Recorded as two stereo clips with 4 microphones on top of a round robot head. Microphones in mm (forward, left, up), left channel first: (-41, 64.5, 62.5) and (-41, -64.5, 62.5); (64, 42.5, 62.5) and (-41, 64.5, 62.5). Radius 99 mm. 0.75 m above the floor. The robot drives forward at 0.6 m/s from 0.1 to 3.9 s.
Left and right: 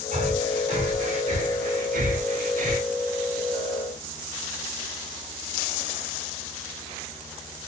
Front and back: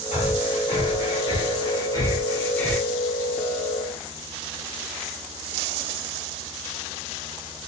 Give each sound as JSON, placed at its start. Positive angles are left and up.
{"t": 0.1, "sound": "breathing", "azimuth_deg": -45, "distance_m": 2.0}